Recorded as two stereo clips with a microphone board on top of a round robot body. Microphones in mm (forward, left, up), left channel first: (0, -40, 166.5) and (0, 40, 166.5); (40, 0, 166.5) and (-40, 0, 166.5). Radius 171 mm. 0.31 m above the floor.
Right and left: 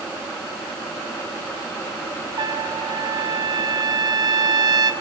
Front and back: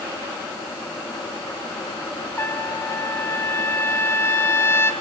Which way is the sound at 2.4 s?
60° left.